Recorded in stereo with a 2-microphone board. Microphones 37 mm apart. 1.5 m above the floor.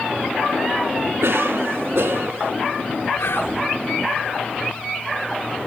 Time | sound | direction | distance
1.2 | a cough | 75° right (ahead or behind) | 1.8 m
3.2 | whispering | 75° left (ahead or behind) | 5 m